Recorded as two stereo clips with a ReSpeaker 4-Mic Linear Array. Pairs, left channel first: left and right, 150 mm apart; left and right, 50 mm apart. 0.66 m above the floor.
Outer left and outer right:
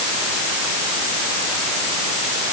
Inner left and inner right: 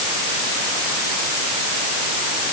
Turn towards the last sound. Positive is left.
No sound to turn to.